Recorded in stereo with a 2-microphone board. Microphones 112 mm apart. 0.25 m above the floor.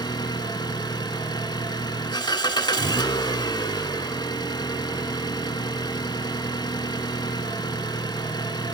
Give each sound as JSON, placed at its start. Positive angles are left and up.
{"t": 0.0, "sound": "an engine running", "side_deg": 45, "distance_m": 0.7}